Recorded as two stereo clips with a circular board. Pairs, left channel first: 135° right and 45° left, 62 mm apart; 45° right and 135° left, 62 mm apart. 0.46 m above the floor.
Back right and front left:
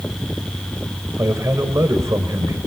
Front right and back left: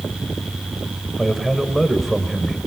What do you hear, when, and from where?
1.2 s a man speaking: 40° left, 2 m